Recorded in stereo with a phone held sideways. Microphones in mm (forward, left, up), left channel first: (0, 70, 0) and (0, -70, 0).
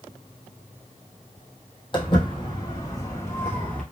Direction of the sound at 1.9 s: 40° left (ahead or behind).